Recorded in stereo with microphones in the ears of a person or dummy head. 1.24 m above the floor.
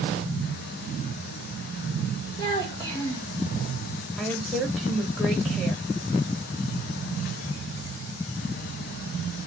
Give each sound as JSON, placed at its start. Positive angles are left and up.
{"t": 2.4, "sound": "a child speaking", "side_deg": 15, "distance_m": 4.0}
{"t": 4.2, "sound": "a woman speaking", "side_deg": -5, "distance_m": 3.0}